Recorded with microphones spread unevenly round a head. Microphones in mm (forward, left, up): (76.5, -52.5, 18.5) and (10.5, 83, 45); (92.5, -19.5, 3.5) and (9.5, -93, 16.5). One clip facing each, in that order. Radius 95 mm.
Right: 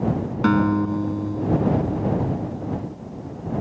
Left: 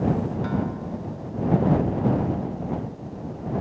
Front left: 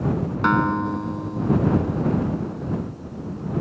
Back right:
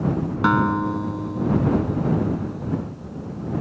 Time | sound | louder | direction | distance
0.4 | a guitar | right 9 dB, back right 1 dB | 55° right | ?